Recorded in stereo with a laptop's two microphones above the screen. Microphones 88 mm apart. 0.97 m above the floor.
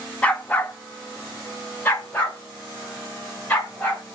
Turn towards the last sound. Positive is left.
turn(degrees=20)  # may be behind; listen again after turning